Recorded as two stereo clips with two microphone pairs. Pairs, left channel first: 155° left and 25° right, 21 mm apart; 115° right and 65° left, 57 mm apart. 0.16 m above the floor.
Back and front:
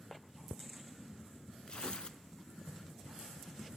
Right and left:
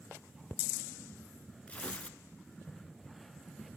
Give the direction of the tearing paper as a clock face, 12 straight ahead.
6 o'clock.